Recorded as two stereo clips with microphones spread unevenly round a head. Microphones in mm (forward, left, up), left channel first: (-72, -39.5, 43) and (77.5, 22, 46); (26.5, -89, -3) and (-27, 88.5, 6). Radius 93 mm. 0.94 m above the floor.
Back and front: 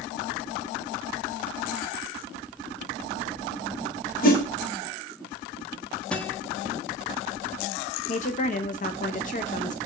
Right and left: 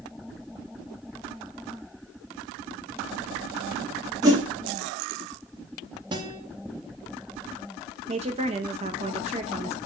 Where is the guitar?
135° left, 0.8 m.